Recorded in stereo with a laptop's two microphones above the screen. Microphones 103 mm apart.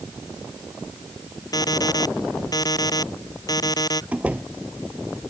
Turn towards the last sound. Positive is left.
turn(degrees=-15)  # may be behind; listen again after turning